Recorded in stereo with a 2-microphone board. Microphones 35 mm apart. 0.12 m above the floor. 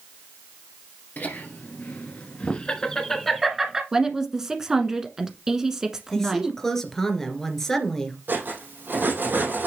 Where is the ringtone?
I don't hear a ringtone.